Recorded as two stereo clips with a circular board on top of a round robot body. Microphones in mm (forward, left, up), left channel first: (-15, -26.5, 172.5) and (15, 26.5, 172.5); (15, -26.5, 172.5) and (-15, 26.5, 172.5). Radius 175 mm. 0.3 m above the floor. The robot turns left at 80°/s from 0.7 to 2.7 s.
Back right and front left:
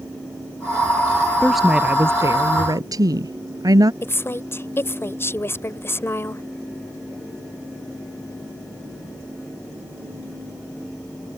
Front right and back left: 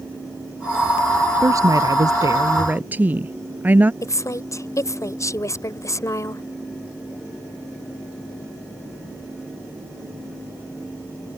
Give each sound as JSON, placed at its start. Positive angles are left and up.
{"t": 1.4, "sound": "a woman speaking", "azimuth_deg": 160}
{"t": 4.0, "sound": "a woman speaking", "azimuth_deg": -80}